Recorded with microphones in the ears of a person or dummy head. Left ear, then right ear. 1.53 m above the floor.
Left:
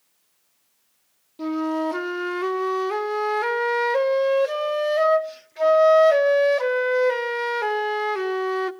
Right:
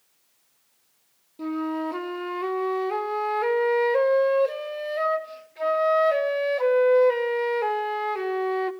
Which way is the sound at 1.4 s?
20° left (ahead or behind).